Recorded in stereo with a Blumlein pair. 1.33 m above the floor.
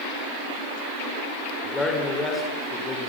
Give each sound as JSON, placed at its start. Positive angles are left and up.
{"t": 1.6, "sound": "a man speaking", "azimuth_deg": 10, "distance_m": 6.0}